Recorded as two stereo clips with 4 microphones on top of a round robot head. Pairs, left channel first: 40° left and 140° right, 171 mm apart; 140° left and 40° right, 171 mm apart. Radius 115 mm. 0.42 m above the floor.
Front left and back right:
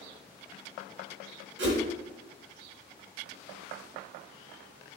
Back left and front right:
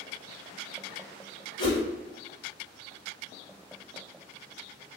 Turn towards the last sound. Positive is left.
turn(degrees=-155)